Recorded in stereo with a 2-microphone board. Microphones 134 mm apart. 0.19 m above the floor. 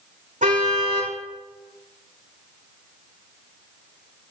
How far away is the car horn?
About 5 m.